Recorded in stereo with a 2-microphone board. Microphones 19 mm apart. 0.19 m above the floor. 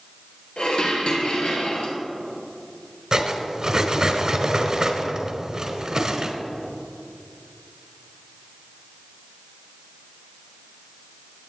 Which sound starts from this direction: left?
Dishes clattering, at 0.6 s.